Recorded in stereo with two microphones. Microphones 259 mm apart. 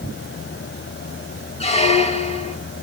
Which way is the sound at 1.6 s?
25° left (ahead or behind).